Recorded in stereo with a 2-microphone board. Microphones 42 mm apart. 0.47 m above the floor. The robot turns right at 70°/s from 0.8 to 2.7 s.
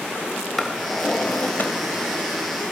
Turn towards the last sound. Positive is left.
turn(degrees=135)